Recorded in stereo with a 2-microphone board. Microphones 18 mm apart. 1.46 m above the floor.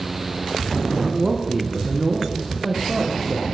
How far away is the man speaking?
About 1.3 m.